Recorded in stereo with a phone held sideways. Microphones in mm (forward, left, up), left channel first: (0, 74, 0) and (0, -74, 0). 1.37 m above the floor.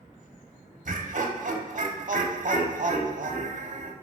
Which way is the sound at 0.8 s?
60° right (ahead or behind).